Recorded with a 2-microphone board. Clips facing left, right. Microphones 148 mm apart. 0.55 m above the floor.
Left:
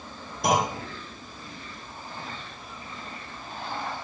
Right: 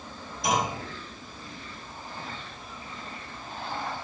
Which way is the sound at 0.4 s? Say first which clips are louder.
Left 3 dB; 55° left (ahead or behind).